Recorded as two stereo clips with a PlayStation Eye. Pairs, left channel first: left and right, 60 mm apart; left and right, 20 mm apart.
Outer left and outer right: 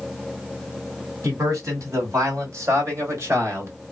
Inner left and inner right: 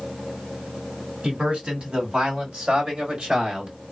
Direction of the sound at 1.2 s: 60° right (ahead or behind).